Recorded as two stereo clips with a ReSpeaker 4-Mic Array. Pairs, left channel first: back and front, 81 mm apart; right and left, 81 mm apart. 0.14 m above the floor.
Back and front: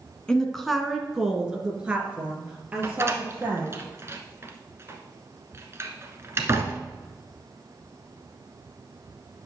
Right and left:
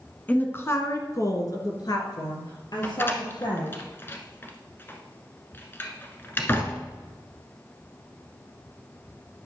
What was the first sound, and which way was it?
A woman speaking, 115° right.